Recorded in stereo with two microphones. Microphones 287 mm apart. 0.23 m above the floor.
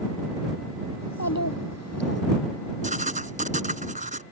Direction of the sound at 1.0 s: 70° left (ahead or behind).